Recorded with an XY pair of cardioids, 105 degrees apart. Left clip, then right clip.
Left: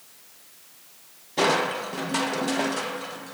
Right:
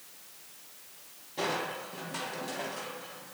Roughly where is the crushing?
Left.